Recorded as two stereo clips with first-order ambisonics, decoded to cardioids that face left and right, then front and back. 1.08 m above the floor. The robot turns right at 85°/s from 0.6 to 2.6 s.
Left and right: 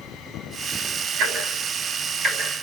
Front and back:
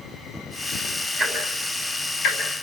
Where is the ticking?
115° right, 6 m; by 2.4 s 10° right, 6 m.